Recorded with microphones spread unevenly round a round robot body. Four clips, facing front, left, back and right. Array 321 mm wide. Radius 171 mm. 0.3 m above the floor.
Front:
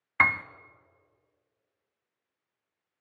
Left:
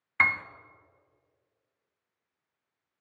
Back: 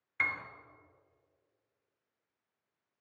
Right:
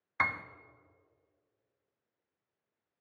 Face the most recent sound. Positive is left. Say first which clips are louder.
# left 5 dB, front 11 dB
turn(degrees=5)